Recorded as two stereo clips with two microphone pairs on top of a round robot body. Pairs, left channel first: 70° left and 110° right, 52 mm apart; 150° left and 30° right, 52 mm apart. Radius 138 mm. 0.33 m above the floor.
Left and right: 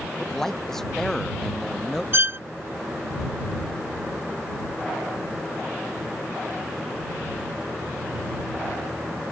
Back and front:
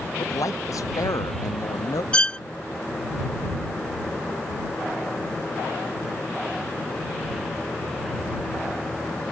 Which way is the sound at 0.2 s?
155° left.